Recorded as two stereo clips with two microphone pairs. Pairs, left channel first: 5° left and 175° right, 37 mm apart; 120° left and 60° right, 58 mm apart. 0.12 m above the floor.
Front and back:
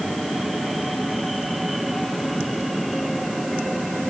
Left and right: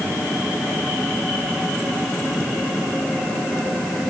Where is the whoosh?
I don't hear a whoosh.